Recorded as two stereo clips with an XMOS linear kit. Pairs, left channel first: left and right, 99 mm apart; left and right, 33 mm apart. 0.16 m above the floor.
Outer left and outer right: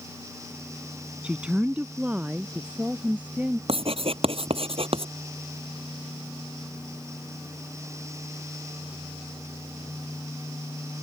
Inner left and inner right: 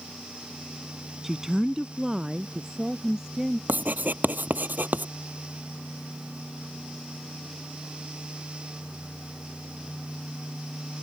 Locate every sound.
1.2 s a woman speaking: 10° right (ahead or behind); by 3.6 s 15° right (ahead or behind)
3.7 s writing: 70° right (ahead or behind)